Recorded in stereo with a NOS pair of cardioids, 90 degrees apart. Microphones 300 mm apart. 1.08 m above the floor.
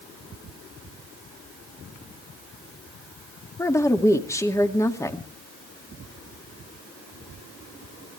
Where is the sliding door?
I don't hear a sliding door.